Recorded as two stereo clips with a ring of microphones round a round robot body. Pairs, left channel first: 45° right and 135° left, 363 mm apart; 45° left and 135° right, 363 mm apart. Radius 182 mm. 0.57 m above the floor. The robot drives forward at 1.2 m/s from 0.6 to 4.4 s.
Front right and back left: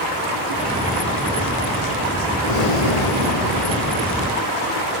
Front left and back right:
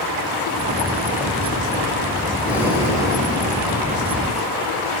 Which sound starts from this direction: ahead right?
Breathing, at 2.4 s.